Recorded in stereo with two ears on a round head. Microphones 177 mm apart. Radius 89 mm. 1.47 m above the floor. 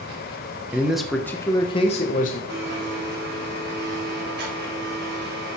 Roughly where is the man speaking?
Centre.